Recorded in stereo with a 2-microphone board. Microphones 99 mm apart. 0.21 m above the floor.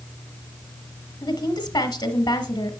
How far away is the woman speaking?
About 1.2 m.